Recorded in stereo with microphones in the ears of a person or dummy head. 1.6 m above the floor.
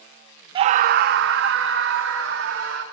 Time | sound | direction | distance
0.6 | a scream | 30° right (ahead or behind) | 0.6 m